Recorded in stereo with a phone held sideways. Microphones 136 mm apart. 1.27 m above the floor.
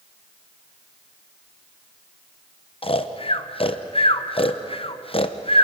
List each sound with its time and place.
2.8 s snoring: 40° left (ahead or behind), 0.9 m